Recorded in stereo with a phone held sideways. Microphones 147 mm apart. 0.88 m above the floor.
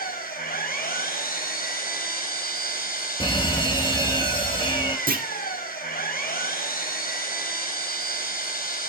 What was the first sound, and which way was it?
An engine running, 85° left.